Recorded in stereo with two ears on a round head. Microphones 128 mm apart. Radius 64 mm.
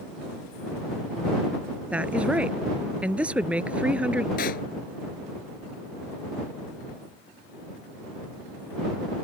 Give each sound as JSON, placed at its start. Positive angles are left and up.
{"t": 1.9, "sound": "a woman speaking", "side_deg": -10}
{"t": 4.4, "sound": "a pop", "side_deg": 65}